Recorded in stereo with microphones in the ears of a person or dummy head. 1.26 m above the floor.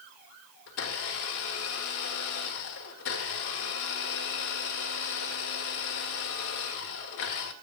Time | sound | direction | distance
0.7 | a blender | 60° left (ahead or behind) | 1.7 m